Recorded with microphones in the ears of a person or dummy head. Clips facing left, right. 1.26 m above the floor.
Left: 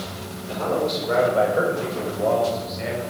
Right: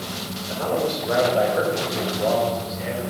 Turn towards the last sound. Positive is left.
turn(degrees=20)  # may be behind; listen again after turning